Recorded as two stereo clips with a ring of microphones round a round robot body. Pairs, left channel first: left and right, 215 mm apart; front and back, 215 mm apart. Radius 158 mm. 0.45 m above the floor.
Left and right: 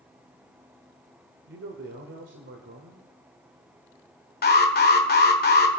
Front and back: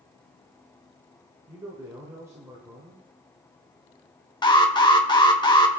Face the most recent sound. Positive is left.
turn(degrees=65)